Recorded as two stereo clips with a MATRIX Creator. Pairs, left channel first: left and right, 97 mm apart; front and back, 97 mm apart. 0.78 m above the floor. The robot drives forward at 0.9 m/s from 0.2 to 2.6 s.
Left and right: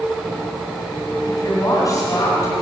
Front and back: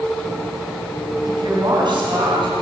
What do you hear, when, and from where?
1.2 s a woman speaking: 140° left, 6.5 m; by 2.6 s 145° left, 7.5 m